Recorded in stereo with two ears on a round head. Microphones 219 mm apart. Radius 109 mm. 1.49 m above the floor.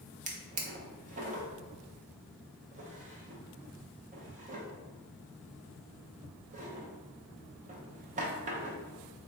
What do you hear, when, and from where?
0.3 s a drawer: 30° right (ahead or behind), 0.7 m